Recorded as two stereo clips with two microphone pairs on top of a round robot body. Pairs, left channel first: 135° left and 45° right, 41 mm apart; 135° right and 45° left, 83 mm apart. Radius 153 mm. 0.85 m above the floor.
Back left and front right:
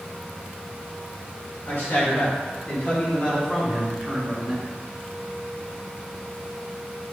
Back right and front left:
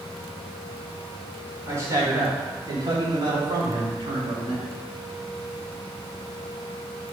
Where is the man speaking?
105° left, 4 m; by 4.6 s 50° left, 3.5 m.